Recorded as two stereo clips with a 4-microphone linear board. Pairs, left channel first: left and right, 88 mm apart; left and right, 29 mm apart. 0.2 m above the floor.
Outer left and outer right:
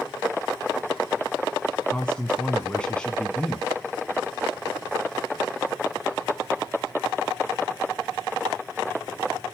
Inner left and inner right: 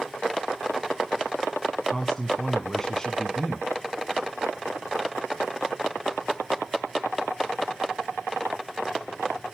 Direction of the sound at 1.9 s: 10° left (ahead or behind).